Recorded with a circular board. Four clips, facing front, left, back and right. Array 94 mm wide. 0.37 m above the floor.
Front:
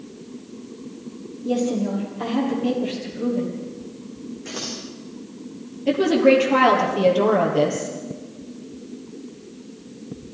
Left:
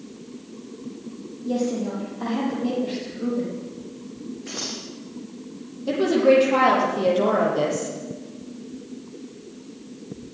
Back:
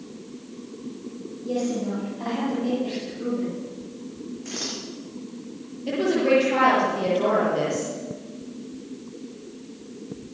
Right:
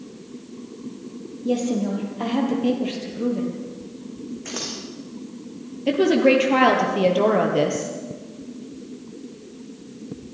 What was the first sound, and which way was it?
A woman speaking, 70° right.